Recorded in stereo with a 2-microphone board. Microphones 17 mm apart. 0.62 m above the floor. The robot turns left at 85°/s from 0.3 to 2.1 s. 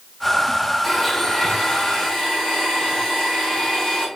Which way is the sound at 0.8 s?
165° right.